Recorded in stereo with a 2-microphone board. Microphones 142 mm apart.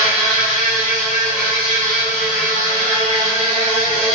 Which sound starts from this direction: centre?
An insect, at 0.0 s.